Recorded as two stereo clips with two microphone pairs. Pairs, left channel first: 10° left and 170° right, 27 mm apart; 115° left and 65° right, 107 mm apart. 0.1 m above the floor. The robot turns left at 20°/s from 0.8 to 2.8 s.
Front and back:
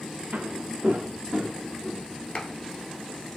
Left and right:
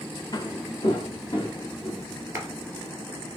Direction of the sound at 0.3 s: 165° left.